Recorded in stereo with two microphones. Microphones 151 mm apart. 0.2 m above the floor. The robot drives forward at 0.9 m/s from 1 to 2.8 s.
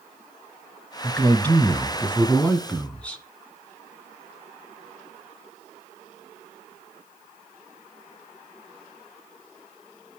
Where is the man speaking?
10° left (ahead or behind), 1.0 m.